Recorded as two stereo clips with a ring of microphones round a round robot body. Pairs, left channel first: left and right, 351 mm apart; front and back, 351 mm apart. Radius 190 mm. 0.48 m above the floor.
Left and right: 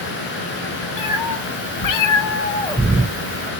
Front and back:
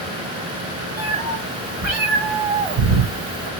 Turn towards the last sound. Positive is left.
turn(degrees=-150)